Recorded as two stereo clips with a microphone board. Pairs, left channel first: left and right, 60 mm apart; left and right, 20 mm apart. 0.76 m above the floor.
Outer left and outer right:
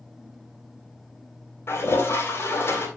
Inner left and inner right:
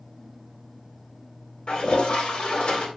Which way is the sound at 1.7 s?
45° left (ahead or behind).